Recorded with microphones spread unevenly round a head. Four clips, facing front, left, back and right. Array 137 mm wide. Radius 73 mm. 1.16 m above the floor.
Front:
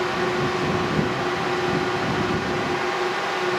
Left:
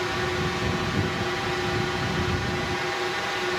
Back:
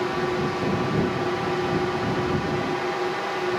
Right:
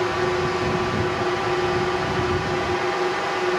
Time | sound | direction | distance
0.0 | a drone | 75° right | ?